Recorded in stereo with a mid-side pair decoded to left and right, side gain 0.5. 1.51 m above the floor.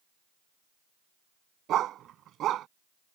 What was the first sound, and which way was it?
A dog barking, 65° right.